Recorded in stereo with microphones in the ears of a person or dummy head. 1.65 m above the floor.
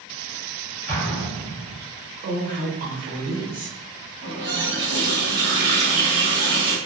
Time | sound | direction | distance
0.9 | an explosion | 25° left (ahead or behind) | 1.0 m
2.2 | a woman speaking | 50° right (ahead or behind) | 1.0 m
4.2 | a running tap | 55° right (ahead or behind) | 1.4 m